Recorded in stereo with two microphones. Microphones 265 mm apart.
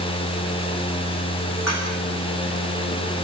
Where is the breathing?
No breathing in this recording.